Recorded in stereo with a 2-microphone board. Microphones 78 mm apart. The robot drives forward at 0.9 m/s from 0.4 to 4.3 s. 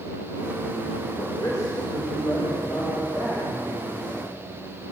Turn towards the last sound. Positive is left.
turn(degrees=30)  # may be behind; listen again after turning